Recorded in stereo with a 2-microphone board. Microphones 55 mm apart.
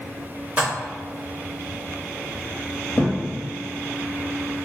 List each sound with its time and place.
0.6 s dishes clattering: 35° right (ahead or behind), 0.9 m
3.0 s a thud: 30° left (ahead or behind), 0.9 m